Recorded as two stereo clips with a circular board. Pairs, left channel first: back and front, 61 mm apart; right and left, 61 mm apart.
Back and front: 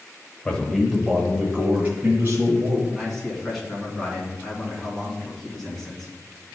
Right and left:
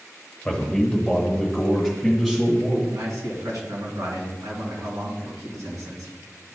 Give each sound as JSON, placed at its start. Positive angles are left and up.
{"t": 0.5, "sound": "a man speaking", "azimuth_deg": -145, "distance_m": 1.4}
{"t": 2.9, "sound": "a man speaking", "azimuth_deg": 95, "distance_m": 2.5}